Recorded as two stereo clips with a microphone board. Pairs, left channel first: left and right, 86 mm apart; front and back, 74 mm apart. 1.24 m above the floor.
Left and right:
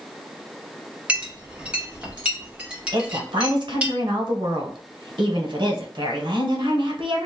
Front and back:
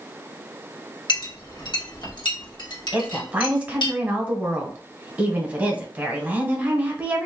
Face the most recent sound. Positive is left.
turn(degrees=-110)